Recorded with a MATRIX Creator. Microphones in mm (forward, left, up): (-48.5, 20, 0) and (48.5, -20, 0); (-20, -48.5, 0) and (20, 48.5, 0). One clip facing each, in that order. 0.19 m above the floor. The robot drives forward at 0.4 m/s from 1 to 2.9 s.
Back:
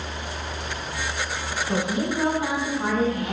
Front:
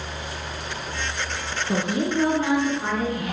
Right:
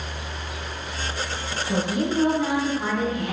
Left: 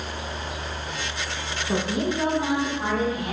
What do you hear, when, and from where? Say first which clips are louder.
1.7 s a woman speaking: front 2 dB, right 1 dB; 85° left, 1.1 m; by 3.3 s 135° left, 1.2 m